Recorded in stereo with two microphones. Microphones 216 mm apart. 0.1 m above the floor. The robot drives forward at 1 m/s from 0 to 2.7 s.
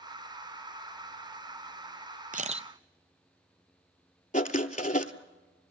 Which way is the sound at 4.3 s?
35° left (ahead or behind).